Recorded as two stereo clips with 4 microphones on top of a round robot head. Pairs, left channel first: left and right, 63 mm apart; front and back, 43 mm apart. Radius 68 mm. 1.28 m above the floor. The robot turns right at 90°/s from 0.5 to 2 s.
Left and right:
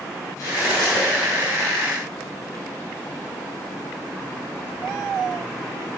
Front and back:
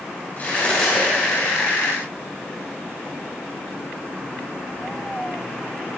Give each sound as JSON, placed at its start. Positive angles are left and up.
{"t": 0.4, "sound": "cutlery clinking", "azimuth_deg": 45, "distance_m": 4.5}